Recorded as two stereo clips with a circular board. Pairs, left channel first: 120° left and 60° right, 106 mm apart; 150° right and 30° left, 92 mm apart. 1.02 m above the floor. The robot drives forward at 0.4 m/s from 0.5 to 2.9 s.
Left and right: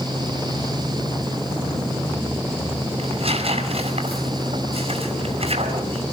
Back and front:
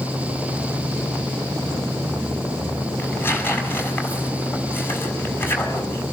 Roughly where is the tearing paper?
Right.